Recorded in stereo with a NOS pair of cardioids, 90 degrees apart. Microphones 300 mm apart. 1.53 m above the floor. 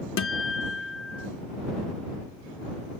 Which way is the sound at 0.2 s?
45° left.